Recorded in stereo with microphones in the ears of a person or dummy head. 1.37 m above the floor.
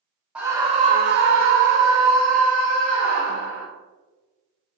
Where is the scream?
5° right (ahead or behind), 0.6 m; by 3.7 s 75° right (ahead or behind), 1.7 m.